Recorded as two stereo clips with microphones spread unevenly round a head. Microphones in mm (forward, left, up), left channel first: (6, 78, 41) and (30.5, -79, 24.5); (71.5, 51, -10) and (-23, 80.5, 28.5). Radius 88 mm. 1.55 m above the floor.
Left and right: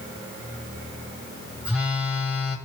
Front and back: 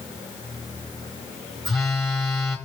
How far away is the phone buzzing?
About 1.4 m.